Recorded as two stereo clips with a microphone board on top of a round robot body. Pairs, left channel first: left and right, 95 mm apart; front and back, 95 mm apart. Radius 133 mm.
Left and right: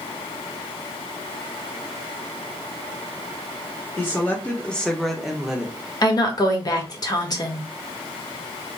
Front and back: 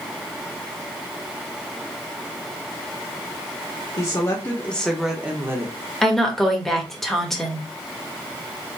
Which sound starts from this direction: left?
A woman speaking, at 6.0 s.